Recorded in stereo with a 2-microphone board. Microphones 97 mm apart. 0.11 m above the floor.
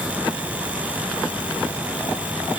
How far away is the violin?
No violin in this recording.